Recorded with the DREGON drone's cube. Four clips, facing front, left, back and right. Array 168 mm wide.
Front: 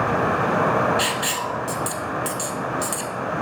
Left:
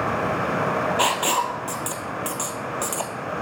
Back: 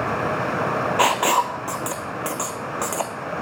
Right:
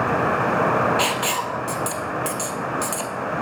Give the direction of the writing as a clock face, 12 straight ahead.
7 o'clock.